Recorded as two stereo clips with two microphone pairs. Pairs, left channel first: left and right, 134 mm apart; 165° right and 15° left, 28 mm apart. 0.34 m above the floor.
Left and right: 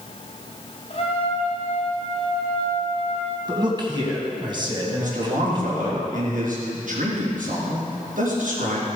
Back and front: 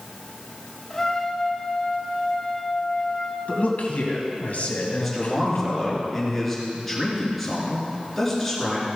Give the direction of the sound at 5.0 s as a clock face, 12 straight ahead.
3 o'clock.